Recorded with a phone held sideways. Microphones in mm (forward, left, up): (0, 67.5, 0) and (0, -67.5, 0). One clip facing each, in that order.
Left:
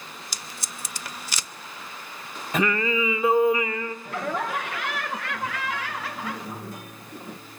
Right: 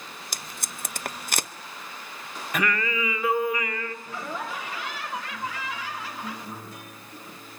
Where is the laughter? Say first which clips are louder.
Left 5 dB; 65° left (ahead or behind), 1.0 m.